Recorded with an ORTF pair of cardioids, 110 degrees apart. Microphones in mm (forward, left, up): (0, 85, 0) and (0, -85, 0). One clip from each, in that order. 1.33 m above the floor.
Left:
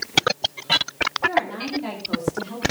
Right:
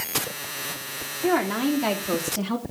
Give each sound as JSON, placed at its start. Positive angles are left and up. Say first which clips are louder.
{"t": 1.2, "sound": "a woman speaking", "louder": "right 3 dB", "azimuth_deg": -65, "distance_m": 3.0}